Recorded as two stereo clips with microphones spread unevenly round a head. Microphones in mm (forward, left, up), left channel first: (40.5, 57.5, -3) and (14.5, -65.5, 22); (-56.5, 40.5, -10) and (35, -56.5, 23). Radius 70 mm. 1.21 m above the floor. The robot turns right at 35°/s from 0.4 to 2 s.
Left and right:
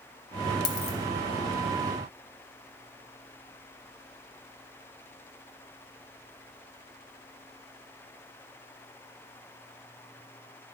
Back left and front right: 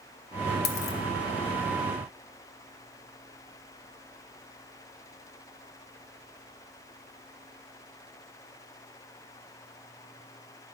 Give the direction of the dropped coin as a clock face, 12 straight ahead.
8 o'clock.